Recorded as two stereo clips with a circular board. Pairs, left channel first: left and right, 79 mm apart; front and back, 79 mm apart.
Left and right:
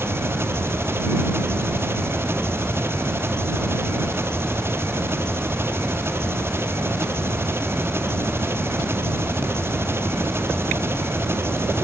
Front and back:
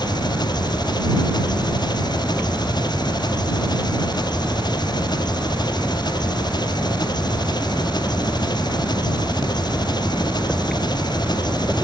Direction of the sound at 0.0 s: 30° right.